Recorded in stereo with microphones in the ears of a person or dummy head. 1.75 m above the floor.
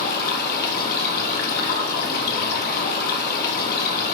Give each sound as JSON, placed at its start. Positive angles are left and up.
{"t": 0.0, "sound": "running water", "side_deg": 55, "distance_m": 0.9}